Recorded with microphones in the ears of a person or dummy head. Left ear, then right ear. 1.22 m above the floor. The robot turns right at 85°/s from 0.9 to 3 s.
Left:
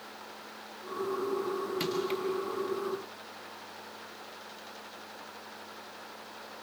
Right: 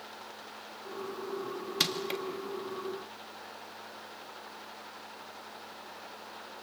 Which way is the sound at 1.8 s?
45° right (ahead or behind).